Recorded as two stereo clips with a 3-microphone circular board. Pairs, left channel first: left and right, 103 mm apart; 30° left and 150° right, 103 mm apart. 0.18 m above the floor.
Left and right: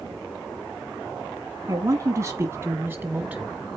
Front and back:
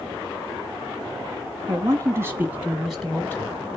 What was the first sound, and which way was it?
A man speaking, 130° right.